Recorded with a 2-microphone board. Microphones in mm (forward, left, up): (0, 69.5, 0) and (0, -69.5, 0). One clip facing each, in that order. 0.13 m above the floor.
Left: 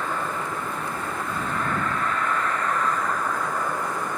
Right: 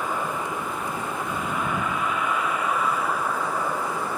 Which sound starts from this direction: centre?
A vehicle, at 0.0 s.